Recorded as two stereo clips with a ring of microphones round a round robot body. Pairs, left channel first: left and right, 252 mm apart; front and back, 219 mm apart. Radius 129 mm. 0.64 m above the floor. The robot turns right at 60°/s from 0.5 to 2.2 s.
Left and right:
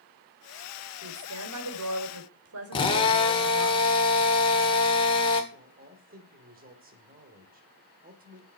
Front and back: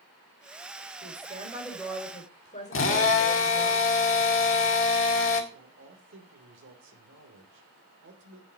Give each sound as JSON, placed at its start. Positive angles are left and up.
{"t": 1.0, "sound": "a woman speaking", "azimuth_deg": -135, "distance_m": 3.0}
{"t": 2.7, "sound": "a drill", "azimuth_deg": 20, "distance_m": 2.0}
{"t": 5.5, "sound": "a man speaking", "azimuth_deg": -145, "distance_m": 2.5}